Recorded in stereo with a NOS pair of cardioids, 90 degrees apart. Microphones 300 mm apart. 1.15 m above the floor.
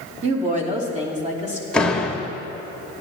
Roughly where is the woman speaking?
Ahead right.